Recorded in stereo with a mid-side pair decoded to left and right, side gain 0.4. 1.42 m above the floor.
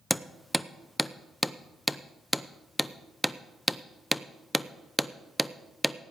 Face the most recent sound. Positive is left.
turn(degrees=0)